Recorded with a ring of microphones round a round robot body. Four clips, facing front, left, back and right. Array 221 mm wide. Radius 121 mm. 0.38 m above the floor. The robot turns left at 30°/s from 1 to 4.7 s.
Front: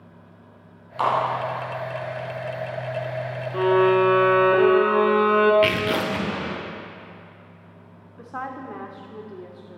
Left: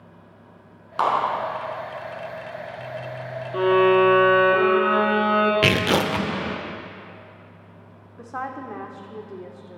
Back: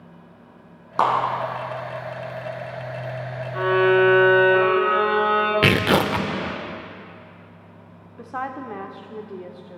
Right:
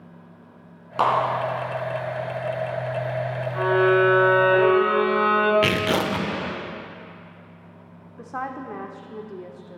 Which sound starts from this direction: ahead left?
A violin, at 3.5 s.